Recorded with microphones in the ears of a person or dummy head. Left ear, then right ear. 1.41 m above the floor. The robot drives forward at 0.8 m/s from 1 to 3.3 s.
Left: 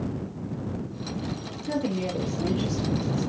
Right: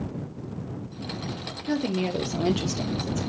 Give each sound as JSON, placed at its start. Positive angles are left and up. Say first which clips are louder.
{"t": 1.7, "sound": "a woman speaking", "louder": "right 1 dB", "side_deg": -35, "distance_m": 0.9}